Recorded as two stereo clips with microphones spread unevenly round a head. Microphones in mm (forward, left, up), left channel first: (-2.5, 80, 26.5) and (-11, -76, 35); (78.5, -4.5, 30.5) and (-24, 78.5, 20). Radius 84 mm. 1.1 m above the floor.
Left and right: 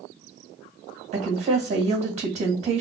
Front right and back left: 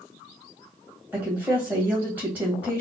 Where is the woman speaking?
140° right, 1.8 m.